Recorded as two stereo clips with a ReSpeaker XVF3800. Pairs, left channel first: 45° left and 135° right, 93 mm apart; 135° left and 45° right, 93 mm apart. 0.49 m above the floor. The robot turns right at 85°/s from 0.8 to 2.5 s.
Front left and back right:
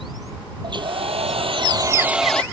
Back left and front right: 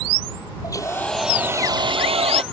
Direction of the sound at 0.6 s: 170° right.